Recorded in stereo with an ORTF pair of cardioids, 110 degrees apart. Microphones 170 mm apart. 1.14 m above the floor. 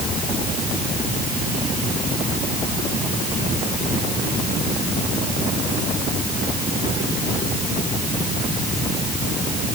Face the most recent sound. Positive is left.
No sound to turn to.